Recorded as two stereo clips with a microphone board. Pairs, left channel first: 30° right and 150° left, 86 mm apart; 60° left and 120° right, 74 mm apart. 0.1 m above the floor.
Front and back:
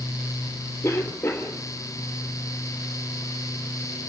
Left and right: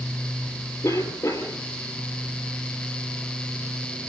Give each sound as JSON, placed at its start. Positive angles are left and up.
{"t": 0.8, "sound": "a cough", "azimuth_deg": 30, "distance_m": 3.0}